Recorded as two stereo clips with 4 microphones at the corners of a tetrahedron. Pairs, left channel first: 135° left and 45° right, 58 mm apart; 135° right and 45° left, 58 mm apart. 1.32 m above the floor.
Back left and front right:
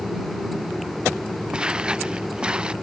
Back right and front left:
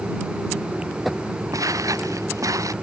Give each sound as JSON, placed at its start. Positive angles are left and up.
{"t": 1.5, "sound": "footsteps", "azimuth_deg": 30}